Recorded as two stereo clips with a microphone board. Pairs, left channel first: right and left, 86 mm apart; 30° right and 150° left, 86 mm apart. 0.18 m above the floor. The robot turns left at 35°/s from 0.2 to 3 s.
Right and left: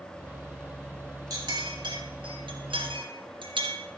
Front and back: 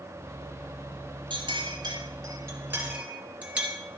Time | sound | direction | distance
1.3 | a clink | 135° left | 3 m